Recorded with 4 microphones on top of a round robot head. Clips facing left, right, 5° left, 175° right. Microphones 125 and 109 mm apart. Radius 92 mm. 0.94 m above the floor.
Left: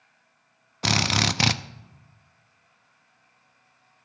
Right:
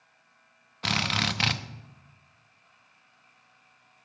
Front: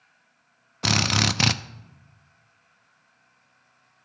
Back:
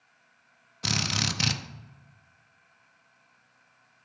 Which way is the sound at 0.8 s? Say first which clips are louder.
Left 5 dB, front 7 dB; 40° left.